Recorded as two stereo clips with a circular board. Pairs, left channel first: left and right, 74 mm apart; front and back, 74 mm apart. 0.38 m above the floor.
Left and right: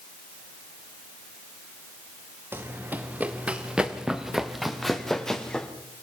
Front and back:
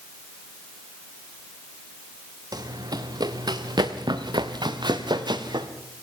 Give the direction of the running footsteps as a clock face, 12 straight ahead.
5 o'clock.